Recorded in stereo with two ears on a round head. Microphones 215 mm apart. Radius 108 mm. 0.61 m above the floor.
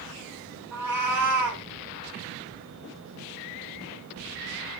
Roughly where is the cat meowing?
Centre.